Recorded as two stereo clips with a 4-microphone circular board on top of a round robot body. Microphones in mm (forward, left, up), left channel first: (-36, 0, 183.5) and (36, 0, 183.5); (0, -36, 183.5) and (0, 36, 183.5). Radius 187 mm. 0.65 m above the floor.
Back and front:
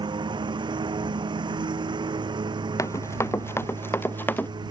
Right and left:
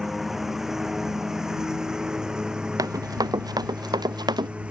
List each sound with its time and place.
0.0 s a lawn mower: 5° left; by 4.7 s 15° left
2.8 s running footsteps: 130° left; by 4.5 s 115° left